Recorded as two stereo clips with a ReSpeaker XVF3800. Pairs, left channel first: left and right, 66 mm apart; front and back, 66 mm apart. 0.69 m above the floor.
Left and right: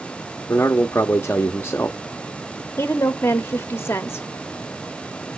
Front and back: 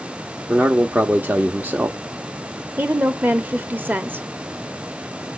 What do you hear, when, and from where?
0.5 s a man speaking: 130° left, 0.8 m
2.8 s a woman speaking: 130° left, 1.3 m